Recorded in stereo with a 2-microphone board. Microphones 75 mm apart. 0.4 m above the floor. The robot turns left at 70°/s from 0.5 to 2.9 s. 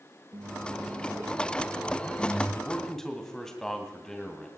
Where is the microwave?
95° right, 9 m; by 2.5 s 125° left, 9 m.